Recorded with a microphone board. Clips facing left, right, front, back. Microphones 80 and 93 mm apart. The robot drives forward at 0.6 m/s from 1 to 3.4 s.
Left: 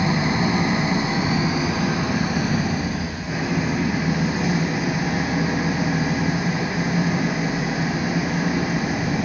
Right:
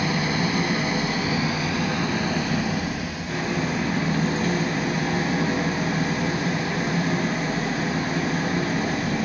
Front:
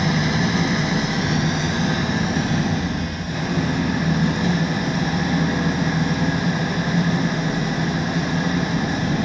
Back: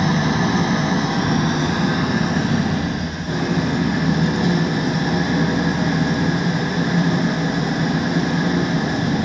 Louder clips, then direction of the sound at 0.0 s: Left 3 dB, back 2 dB; 150° left.